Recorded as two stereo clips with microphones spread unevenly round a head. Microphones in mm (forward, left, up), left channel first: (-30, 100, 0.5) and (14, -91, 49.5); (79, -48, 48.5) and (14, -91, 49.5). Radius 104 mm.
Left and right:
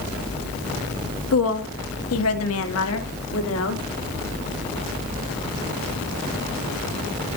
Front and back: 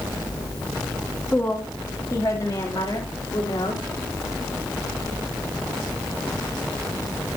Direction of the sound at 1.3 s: 110° left.